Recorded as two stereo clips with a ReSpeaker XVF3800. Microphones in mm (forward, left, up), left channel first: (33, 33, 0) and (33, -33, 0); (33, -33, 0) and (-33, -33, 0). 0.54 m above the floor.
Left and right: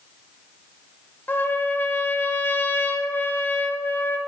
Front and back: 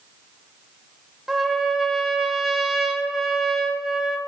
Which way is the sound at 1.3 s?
100° left.